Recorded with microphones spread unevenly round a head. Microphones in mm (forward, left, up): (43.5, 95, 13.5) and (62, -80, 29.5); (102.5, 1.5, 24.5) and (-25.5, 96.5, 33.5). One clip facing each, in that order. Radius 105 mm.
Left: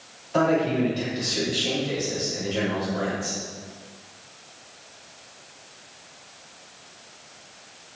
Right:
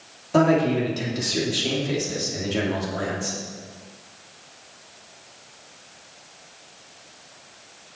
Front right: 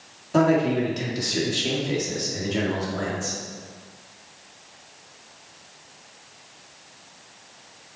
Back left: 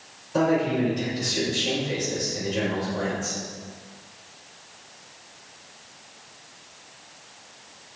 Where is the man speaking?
50° right, 3 m.